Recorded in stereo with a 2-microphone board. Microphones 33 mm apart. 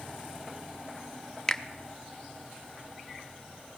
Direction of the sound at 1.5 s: 20° left (ahead or behind).